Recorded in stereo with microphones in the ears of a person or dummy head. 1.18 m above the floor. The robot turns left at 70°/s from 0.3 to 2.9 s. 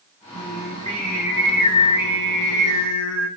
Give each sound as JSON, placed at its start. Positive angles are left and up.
{"t": 0.3, "sound": "singing", "azimuth_deg": -100, "distance_m": 6.5}